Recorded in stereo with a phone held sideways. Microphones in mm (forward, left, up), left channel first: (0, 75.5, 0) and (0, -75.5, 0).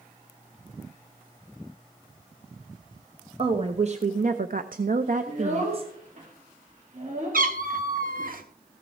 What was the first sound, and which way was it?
A woman speaking, 40° right (ahead or behind).